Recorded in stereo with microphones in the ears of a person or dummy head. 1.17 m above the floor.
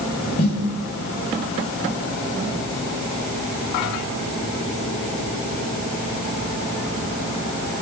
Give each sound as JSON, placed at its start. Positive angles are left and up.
{"t": 0.4, "sound": "a snare drum", "side_deg": 40, "distance_m": 6.0}